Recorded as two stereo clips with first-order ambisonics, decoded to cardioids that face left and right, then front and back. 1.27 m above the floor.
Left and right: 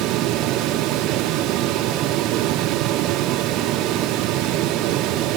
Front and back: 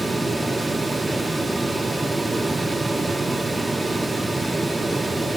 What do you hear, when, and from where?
Only background noise.